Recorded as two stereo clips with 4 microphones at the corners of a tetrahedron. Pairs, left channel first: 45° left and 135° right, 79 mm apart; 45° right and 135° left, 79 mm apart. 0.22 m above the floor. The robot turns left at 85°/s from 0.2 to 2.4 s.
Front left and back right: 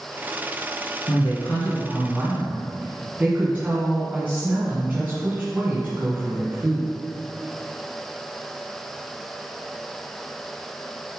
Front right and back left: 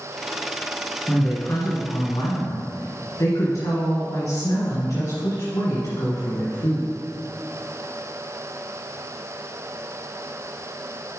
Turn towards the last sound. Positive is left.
turn(degrees=-75)